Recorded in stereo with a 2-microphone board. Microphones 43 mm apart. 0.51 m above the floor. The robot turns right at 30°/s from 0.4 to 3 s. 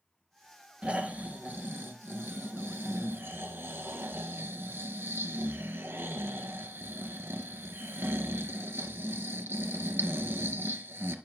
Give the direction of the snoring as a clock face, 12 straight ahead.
5 o'clock.